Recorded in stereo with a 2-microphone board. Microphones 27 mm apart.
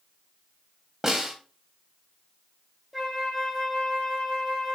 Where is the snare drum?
10° right (ahead or behind), 1.9 m.